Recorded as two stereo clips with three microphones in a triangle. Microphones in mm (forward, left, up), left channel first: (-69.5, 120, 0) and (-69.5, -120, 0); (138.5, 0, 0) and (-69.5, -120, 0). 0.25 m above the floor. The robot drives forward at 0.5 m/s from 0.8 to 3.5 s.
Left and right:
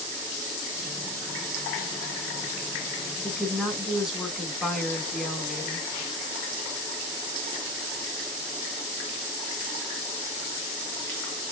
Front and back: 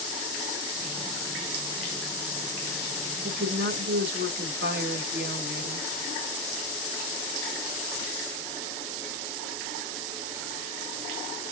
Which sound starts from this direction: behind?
A woman speaking, at 3.2 s.